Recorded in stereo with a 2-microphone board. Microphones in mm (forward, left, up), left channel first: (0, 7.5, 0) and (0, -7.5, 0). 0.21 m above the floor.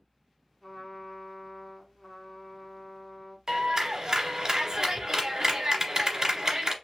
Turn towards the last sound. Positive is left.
turn(degrees=-40)  # may be behind; listen again after turning